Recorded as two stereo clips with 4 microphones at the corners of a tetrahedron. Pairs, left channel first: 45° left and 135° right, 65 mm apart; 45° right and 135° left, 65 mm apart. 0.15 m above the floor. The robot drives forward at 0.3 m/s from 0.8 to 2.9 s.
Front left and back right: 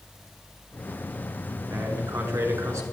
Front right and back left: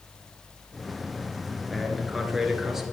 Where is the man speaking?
135° right, 2 m; by 2.8 s 145° right, 2 m.